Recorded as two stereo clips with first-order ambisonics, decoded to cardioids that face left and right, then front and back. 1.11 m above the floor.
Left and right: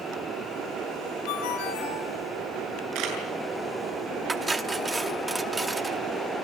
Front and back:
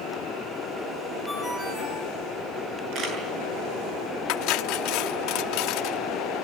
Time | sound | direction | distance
1.3 | a ringtone | 85° left | 8.5 m
3.0 | a camera shutter | 125° right | 7.5 m
4.3 | cutlery clinking | 10° right | 1.0 m